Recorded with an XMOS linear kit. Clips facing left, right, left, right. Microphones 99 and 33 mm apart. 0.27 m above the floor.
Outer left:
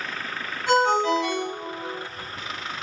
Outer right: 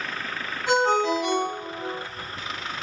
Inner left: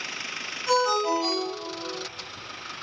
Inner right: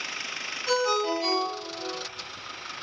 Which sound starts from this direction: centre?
A ringtone, at 0.7 s.